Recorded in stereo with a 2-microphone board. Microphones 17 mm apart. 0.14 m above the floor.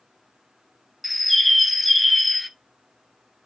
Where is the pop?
I don't hear a pop.